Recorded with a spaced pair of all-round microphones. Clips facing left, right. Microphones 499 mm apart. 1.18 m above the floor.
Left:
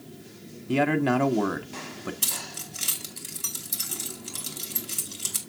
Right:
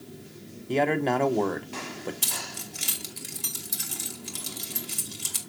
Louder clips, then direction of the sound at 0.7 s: Left 2 dB; 30° left (ahead or behind).